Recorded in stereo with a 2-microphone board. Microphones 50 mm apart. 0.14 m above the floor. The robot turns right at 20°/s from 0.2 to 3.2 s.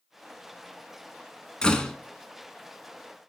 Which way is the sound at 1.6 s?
15° left (ahead or behind).